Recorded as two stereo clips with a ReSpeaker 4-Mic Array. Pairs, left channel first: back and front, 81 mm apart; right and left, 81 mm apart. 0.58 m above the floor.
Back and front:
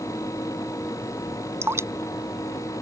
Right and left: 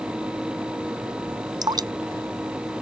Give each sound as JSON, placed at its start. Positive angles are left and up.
{"t": 1.6, "sound": "dripping", "azimuth_deg": 55}